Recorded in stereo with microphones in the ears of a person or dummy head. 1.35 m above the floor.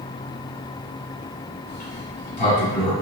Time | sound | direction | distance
1.7 | a sliding door | 40° left (ahead or behind) | 2.0 m